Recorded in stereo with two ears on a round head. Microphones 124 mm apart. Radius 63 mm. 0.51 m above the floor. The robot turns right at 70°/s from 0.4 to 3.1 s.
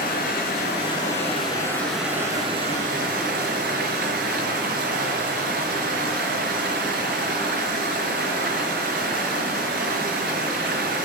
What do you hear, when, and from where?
0.0 s running water: 70° left, 4.5 m; by 11.1 s 100° right, 4.5 m